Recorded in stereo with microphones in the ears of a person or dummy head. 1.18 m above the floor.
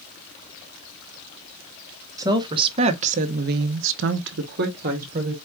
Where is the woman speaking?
25° right (ahead or behind), 1.1 m; by 5.3 s 30° right (ahead or behind), 1.1 m.